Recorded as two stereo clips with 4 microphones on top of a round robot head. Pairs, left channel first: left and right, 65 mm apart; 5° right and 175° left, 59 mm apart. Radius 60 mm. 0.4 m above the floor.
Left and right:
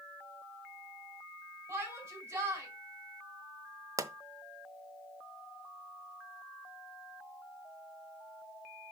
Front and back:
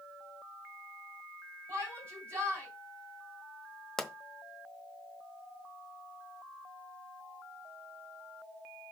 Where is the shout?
130° right, 4.5 m.